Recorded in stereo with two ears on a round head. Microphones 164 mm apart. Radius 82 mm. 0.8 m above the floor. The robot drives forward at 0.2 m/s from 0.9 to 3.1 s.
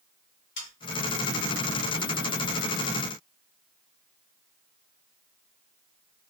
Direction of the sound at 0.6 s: 65° left (ahead or behind).